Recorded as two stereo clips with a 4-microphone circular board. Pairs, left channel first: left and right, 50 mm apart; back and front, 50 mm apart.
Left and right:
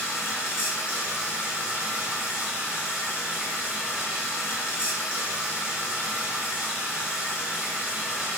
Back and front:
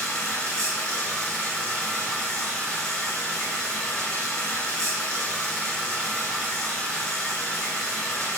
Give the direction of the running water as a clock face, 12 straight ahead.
4 o'clock.